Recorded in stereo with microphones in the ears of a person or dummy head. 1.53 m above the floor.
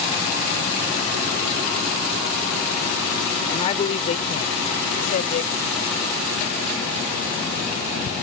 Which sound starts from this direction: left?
A woman speaking, at 3.5 s.